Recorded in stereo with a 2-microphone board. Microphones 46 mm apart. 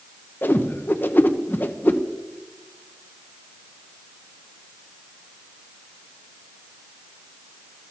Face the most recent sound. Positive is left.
turn(degrees=45)  # may be behind; listen again after turning